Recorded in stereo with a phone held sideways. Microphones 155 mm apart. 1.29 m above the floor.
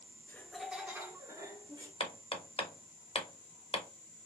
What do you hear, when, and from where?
0.3 s laughter: 15° left (ahead or behind), 0.5 m; by 1.9 s 25° right (ahead or behind), 1.2 m
2.0 s hammering: 35° left (ahead or behind), 0.6 m